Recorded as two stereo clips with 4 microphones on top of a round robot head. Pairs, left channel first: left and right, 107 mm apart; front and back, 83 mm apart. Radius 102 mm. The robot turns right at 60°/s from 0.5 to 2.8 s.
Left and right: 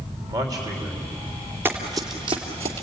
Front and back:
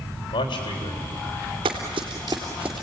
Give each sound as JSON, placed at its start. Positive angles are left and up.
{"t": 0.3, "sound": "a man speaking", "azimuth_deg": -35, "distance_m": 3.5}
{"t": 1.6, "sound": "running footsteps", "azimuth_deg": -160, "distance_m": 2.5}